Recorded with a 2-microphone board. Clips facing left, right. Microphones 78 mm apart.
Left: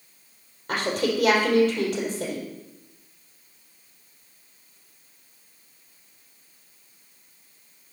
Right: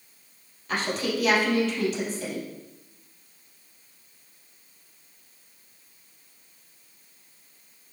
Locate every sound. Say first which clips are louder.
0.7 s a woman speaking: left 3 dB; 45° left (ahead or behind), 4 m